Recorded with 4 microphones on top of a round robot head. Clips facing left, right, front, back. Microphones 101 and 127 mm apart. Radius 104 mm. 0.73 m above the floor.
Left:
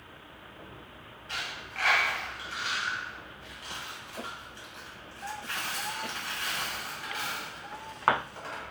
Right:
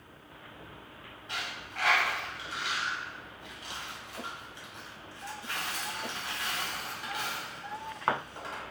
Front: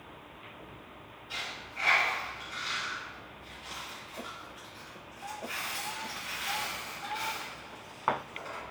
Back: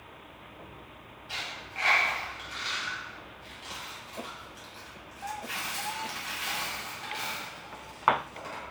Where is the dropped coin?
165° right, 1.8 m.